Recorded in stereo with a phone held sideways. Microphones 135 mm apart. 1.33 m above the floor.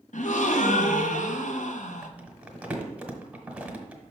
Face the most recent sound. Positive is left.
turn(degrees=-10)  # may be behind; listen again after turning